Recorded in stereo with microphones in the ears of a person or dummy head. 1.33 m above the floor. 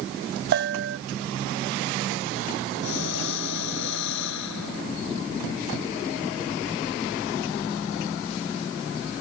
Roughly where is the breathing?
Left.